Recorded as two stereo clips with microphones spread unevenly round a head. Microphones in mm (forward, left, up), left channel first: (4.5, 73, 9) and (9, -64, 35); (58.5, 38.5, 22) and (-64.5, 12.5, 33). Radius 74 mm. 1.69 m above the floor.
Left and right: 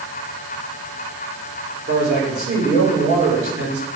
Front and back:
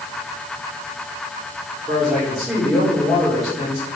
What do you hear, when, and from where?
1.9 s a man speaking: 80° right, 4.5 m